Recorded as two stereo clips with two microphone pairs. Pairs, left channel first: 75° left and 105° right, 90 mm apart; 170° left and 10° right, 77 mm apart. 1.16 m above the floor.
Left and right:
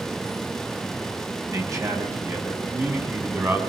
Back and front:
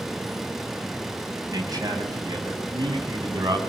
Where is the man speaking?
50° right, 6.5 m; by 3.6 s 40° right, 7.5 m.